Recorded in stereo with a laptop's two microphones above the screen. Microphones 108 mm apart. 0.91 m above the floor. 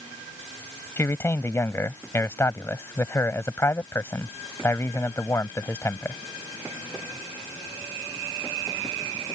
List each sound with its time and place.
1.0 s a man speaking: 25° left (ahead or behind)